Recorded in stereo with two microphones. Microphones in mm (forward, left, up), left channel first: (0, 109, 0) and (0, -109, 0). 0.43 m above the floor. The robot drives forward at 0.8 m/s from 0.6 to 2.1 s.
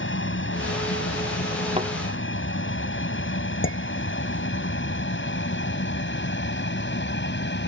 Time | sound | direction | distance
0.0 | an aircraft | 65° left (ahead or behind) | ?
1.8 | a thud | 30° right (ahead or behind) | ?
3.6 | dishes clattering | 65° left (ahead or behind) | ?